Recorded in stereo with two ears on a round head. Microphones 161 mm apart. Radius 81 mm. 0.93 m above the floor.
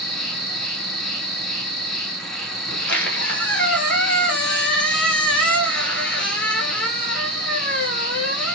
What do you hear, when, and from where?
0.0 s an insect: centre (ahead or behind), 1.0 m
2.7 s a squeak: 5° left (ahead or behind), 1.2 m